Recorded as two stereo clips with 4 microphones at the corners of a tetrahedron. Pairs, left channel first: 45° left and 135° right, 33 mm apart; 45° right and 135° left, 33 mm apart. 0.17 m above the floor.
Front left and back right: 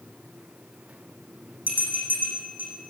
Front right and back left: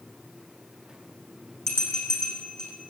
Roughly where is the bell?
Behind right.